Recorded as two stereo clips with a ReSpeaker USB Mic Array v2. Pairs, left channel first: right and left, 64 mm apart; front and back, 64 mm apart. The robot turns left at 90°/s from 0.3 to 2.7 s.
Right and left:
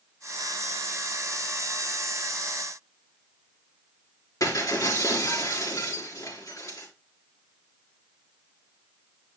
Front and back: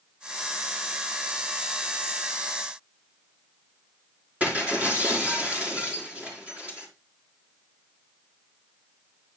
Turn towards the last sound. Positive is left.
turn(degrees=-115)